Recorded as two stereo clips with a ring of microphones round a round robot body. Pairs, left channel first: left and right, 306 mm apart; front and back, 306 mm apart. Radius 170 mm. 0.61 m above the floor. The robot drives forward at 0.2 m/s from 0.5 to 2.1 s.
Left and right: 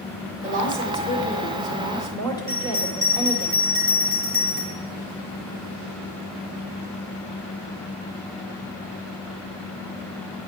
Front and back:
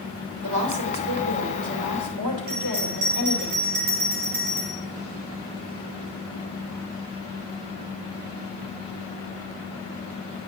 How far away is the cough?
No cough in this recording.